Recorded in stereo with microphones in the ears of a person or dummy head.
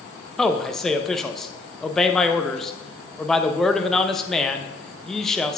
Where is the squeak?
No squeak in this recording.